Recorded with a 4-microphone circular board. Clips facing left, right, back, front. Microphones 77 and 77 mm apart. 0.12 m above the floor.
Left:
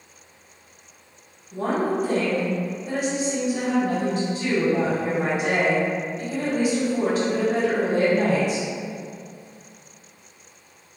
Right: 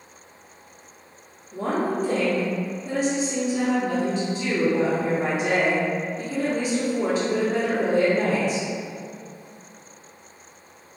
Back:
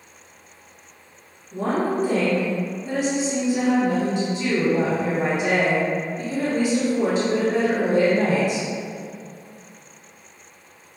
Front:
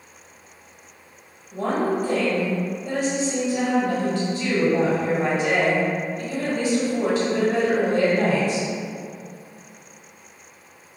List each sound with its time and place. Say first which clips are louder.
1.5 s a woman speaking: left 1 dB, even; 120° left, 1.6 m